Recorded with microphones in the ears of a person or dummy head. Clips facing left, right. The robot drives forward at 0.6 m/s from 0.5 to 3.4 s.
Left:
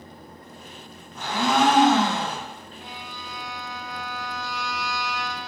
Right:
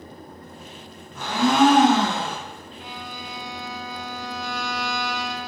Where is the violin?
50° right (ahead or behind), 0.7 m; by 5.5 s 85° right, 0.5 m.